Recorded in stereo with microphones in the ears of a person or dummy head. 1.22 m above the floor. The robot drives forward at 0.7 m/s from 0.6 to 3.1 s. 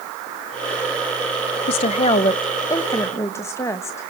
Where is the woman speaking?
35° left (ahead or behind), 0.6 m; by 4.1 s 15° left (ahead or behind), 1.5 m.